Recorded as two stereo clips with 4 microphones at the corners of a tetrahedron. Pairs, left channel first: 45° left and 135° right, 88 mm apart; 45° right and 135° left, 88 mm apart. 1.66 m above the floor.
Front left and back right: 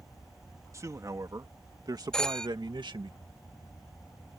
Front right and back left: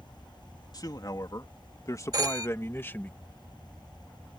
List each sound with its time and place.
0.7 s a man speaking: 85° right; by 3.1 s 115° right
2.1 s a phone ringing: 125° left